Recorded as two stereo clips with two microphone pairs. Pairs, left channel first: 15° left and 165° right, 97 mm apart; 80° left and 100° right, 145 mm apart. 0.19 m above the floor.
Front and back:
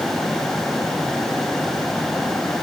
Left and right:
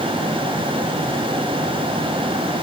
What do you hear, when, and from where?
Only background noise.